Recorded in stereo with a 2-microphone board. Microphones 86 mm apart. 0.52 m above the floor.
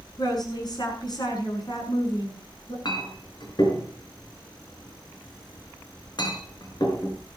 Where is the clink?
55° left (ahead or behind), 4 m.